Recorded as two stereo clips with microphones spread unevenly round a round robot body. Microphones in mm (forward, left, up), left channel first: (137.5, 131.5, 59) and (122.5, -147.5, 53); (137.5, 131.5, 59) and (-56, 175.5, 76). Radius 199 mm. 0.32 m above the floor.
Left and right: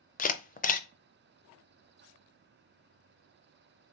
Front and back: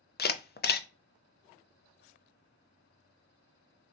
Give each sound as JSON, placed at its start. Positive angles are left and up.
{"t": 0.2, "sound": "a camera shutter", "azimuth_deg": 25, "distance_m": 0.6}